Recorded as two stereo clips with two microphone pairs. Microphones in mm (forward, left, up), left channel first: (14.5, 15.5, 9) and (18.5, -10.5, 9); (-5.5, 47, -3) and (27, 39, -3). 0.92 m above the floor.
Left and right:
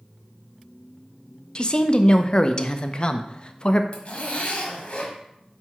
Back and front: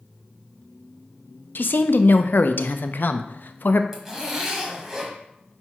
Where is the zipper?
60° left, 1.5 m.